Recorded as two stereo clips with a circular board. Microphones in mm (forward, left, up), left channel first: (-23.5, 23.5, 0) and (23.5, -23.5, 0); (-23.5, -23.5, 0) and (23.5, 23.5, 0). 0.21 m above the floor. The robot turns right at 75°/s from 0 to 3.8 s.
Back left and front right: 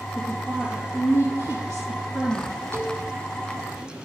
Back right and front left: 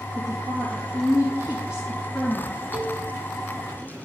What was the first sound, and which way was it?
A woman speaking, 5° left.